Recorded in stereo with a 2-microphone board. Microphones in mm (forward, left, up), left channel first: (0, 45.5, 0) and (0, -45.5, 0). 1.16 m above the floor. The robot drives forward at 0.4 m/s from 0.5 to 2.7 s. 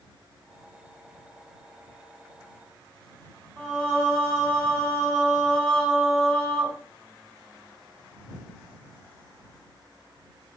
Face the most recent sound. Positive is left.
turn(degrees=0)  # may be behind; listen again after turning